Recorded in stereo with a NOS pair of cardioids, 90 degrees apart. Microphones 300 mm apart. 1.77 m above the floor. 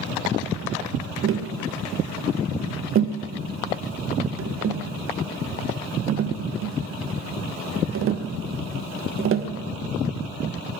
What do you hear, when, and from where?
1.2 s tapping: 45° right, 0.8 m